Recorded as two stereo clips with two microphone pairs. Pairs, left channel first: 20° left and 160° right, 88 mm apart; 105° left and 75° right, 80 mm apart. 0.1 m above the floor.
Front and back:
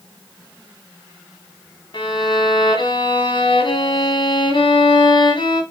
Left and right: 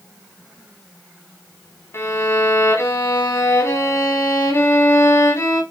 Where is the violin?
55° left, 2.5 m.